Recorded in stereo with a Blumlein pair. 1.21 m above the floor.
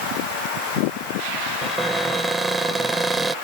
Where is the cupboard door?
10° right.